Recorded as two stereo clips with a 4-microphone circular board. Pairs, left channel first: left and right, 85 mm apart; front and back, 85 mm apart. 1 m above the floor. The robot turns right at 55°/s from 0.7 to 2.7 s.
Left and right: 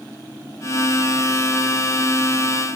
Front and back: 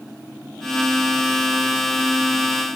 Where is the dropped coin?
I don't hear a dropped coin.